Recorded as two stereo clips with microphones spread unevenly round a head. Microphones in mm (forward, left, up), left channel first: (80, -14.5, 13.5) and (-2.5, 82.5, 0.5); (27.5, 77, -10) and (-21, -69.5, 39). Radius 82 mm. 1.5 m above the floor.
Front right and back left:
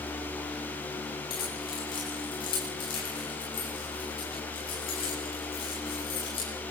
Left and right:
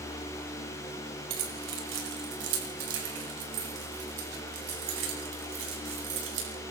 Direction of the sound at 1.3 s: 115° right.